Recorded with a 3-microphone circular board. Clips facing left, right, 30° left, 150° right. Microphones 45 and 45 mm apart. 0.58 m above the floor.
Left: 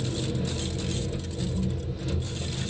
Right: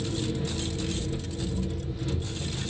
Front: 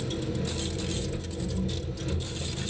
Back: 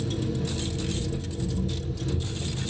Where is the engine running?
5° right, 2.5 m.